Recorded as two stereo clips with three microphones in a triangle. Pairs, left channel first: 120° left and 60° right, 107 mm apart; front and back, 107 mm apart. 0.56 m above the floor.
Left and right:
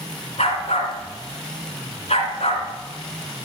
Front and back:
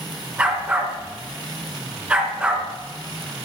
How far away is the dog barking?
About 2.5 m.